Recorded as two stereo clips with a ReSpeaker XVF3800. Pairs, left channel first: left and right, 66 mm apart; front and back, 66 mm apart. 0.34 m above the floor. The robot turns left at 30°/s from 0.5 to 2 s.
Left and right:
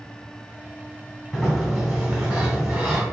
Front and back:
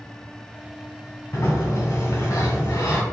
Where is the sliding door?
Straight ahead, 1.2 m; by 3.0 s 20° right, 1.2 m.